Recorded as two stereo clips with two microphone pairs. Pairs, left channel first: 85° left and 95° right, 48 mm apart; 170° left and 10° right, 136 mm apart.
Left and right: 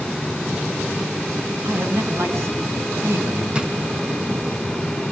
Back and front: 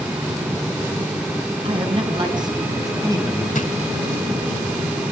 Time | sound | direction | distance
1.6 | a man speaking | 55° right | 5.5 m
3.5 | a drawer | 165° right | 2.5 m